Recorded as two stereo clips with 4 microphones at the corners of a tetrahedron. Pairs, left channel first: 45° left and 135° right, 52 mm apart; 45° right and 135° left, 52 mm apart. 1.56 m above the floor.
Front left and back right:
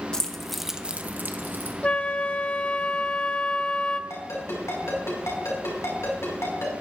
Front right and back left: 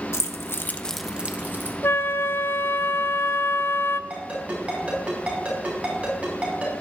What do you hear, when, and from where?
0.1 s keys jangling: 30° right, 1.1 m; by 1.7 s 175° left, 1.3 m
1.8 s a flute: 20° right, 0.5 m
4.1 s a ringtone: 70° left, 5 m